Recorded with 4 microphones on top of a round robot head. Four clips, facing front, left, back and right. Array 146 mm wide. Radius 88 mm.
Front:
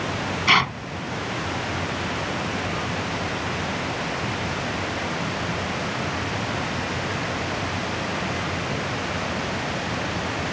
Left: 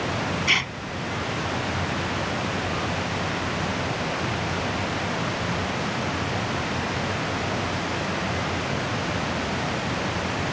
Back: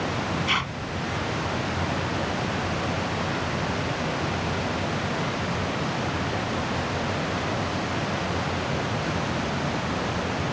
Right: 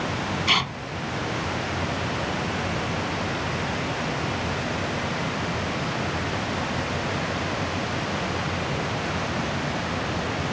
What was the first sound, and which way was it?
Tearing paper, 15° right.